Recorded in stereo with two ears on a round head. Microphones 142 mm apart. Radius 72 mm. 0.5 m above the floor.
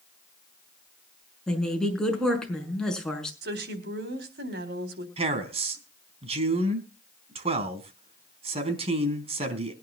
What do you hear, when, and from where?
1.5 s a woman speaking: 5° left (ahead or behind), 6 m
3.4 s a woman speaking: 75° right (ahead or behind), 4 m
5.2 s a man speaking: 40° right (ahead or behind), 4 m